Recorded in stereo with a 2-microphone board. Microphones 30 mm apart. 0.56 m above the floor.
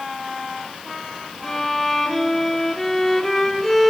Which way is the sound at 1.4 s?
10° left (ahead or behind).